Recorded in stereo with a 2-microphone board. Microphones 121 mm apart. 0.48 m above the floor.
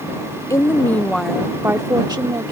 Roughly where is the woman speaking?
Left.